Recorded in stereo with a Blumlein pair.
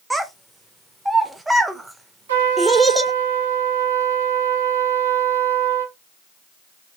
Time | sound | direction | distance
0.1 | a child speaking | 5° right | 0.6 m
2.3 | a trumpet | 65° right | 1.4 m